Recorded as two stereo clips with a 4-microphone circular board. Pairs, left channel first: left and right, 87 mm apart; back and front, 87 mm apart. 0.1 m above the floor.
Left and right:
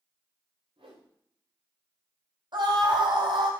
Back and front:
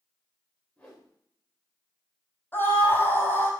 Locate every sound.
0.8 s a whoosh: 100° right, 5 m
2.5 s a scream: 115° right, 4.5 m